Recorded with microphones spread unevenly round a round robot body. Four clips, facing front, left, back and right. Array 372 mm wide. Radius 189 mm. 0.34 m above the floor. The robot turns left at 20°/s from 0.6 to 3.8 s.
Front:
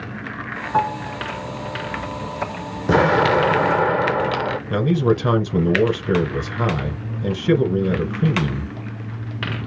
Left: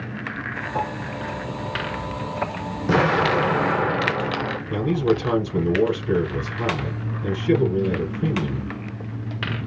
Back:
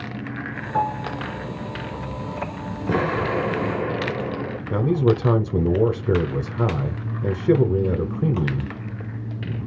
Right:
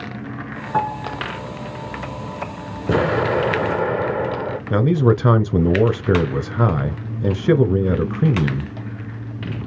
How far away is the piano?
About 2 m.